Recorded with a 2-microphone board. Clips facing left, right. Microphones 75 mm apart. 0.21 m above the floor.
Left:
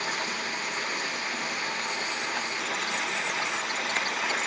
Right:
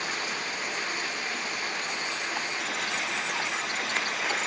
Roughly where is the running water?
Left.